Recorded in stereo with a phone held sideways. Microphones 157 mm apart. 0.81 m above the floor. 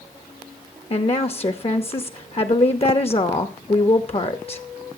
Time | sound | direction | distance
0.9 | a woman speaking | 40° left (ahead or behind) | 0.7 m